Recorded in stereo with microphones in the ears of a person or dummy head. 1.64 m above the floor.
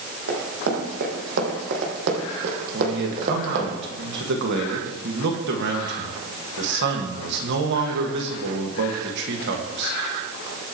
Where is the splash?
No splash in this recording.